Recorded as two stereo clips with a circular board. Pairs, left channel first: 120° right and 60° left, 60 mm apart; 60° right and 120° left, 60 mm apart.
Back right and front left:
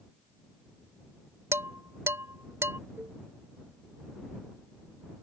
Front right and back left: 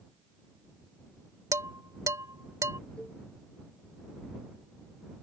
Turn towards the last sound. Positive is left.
turn(degrees=10)